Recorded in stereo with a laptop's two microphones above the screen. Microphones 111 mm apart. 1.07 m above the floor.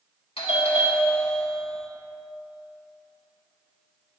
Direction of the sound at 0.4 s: 65° left (ahead or behind).